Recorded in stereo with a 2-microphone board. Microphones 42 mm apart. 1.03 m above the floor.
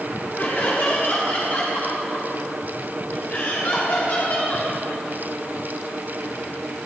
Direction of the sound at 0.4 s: 50° left (ahead or behind).